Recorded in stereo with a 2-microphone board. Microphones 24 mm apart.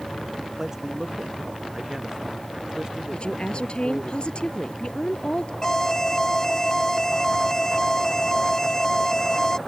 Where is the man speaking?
20° right (ahead or behind); by 4.1 s 35° right (ahead or behind).